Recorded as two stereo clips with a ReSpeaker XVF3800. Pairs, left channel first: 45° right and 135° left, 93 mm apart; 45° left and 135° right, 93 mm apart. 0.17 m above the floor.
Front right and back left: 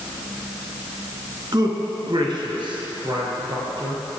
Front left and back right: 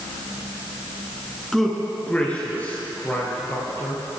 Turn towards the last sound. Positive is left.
turn(degrees=110)